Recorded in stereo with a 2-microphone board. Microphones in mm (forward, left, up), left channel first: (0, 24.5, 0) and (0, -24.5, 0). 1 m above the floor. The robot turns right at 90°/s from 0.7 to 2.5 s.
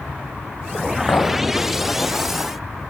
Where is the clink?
40° left (ahead or behind), 4 m; by 1.3 s 15° left (ahead or behind), 4 m.